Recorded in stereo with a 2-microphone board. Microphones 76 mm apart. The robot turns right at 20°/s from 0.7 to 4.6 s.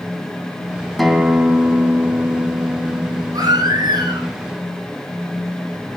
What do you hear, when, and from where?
1.0 s a guitar: straight behind, 2.5 m; by 4.3 s 115° right, 2.5 m
3.3 s a baby crying: 55° right (ahead or behind), 6 m; by 4.3 s 70° right (ahead or behind), 6 m